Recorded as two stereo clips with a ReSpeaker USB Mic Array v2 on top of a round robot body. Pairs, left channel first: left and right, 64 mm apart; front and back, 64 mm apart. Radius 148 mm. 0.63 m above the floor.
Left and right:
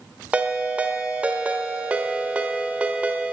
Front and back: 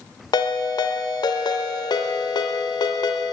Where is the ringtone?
20° right, 0.9 m.